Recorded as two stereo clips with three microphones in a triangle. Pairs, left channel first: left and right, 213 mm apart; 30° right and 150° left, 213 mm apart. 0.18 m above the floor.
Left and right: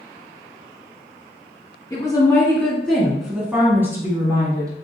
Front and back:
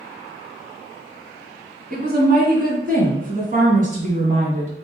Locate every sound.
1.9 s a woman speaking: 155° left, 1.6 m; by 4.8 s 160° right, 2.5 m